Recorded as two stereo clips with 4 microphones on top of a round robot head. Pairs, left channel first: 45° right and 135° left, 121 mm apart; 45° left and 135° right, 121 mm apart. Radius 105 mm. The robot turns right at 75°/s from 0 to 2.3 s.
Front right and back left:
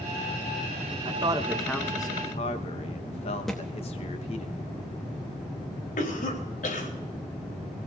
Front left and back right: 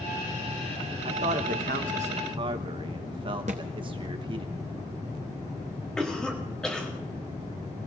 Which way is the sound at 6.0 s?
40° right.